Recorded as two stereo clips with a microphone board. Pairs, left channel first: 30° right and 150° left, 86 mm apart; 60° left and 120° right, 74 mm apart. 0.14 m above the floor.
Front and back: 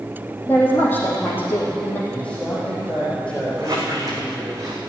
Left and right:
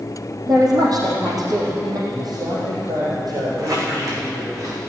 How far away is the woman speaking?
About 3.5 m.